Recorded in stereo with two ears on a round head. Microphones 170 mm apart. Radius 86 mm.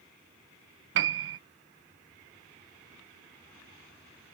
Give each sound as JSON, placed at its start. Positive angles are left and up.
{"t": 0.9, "sound": "a piano", "side_deg": -70}